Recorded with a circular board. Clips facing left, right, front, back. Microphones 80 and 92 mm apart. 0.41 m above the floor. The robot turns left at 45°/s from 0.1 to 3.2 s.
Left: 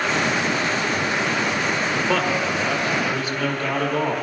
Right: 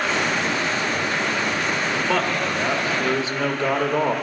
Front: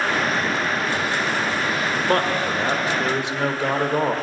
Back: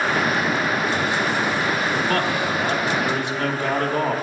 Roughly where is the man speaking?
Ahead.